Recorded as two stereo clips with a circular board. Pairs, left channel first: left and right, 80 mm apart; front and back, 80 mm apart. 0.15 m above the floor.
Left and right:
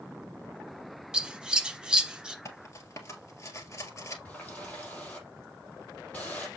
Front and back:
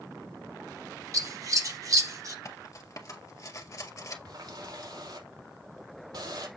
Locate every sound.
1.1 s scissors: 165° right, 1.3 m
2.5 s cutlery clinking: 45° left, 1.7 m
4.2 s a running tap: 160° left, 3.5 m